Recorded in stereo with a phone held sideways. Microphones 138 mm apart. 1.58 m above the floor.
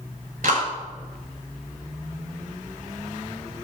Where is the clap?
80° right, 6.5 m.